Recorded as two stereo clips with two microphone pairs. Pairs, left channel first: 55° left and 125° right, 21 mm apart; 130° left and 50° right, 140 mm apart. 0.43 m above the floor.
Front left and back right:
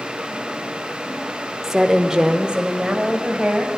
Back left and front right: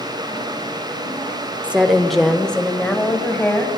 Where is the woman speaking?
120° right, 0.8 m; by 3.8 s 155° right, 2 m.